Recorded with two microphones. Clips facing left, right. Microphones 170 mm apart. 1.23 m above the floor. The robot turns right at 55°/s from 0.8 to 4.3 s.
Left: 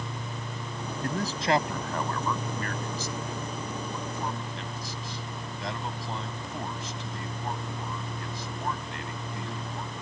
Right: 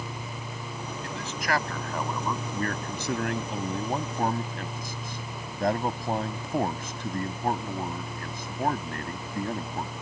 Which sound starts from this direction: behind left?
A man speaking, at 1.0 s.